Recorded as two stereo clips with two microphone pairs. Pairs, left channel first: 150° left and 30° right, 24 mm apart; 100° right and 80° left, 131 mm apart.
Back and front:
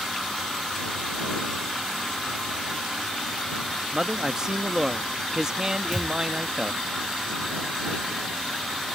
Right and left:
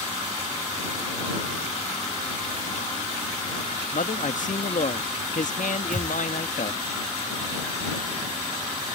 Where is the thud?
70° left.